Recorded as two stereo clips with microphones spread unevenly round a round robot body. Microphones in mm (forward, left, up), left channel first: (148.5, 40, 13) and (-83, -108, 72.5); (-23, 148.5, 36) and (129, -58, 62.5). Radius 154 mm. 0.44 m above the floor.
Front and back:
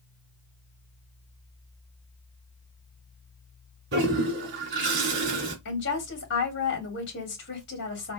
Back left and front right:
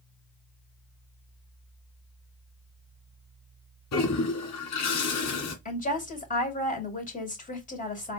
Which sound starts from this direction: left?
A woman speaking, at 5.7 s.